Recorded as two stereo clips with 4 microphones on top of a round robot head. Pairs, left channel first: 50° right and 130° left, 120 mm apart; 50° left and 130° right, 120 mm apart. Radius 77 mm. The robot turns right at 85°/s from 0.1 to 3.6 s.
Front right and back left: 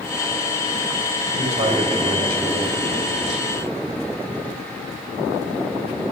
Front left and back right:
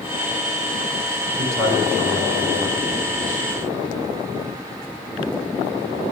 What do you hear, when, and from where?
1.4 s a man speaking: 145° left, 7.5 m; by 3.5 s 35° right, 7.5 m